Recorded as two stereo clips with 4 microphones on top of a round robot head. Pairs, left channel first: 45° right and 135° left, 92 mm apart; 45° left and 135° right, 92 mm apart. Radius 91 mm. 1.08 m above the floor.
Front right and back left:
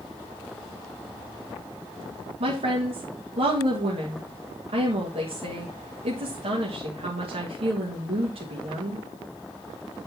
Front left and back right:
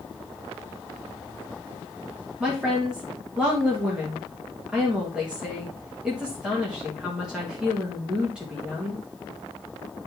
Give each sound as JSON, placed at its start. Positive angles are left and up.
{"t": 2.4, "sound": "a woman speaking", "azimuth_deg": 145, "distance_m": 1.7}